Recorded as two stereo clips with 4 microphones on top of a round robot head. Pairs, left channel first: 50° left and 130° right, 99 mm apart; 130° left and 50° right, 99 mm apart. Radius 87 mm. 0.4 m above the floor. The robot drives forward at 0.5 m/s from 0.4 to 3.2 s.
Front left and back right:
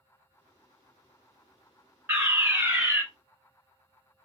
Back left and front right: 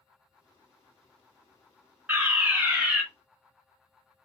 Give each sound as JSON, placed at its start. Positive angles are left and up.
{"t": 2.1, "sound": "a fire alarm", "azimuth_deg": -95, "distance_m": 2.0}